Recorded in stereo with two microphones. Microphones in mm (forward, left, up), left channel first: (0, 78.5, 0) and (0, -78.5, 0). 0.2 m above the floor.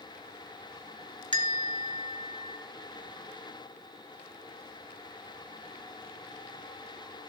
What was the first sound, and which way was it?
A bell, 30° left (ahead or behind).